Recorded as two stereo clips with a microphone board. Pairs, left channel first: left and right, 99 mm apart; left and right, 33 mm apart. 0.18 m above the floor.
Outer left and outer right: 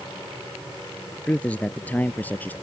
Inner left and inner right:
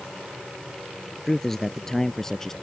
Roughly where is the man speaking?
Centre.